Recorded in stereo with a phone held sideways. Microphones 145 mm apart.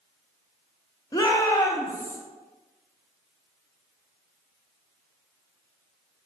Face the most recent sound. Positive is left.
turn(degrees=20)  # may be behind; listen again after turning